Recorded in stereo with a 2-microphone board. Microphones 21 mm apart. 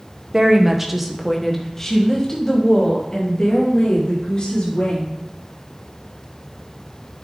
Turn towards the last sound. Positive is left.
turn(degrees=45)  # may be behind; listen again after turning